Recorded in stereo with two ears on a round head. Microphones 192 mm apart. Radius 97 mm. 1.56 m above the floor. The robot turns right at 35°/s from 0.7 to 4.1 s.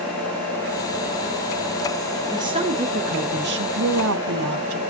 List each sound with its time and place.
2.3 s a woman speaking: 160° right, 1.9 m; by 4.8 s 100° right, 1.9 m